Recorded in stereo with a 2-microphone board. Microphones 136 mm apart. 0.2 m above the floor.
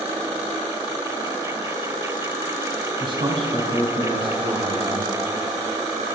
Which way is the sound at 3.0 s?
35° right (ahead or behind).